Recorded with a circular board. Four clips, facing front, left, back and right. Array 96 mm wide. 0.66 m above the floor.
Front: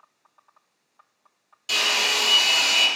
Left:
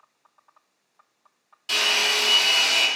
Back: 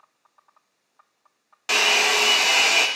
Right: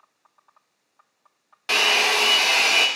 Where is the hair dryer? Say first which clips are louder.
Right 5 dB, back 5 dB; 135° right, 0.7 m.